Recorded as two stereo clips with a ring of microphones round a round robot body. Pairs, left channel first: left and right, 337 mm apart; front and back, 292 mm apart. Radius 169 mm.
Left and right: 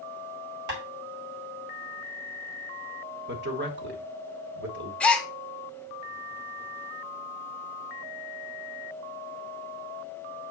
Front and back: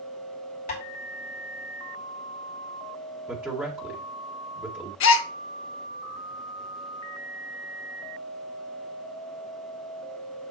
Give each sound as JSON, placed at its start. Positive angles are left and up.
{"t": 0.7, "sound": "tapping", "azimuth_deg": -60, "distance_m": 3.0}
{"t": 3.3, "sound": "a man speaking", "azimuth_deg": -100, "distance_m": 1.5}
{"t": 5.0, "sound": "a gasp", "azimuth_deg": 5, "distance_m": 0.6}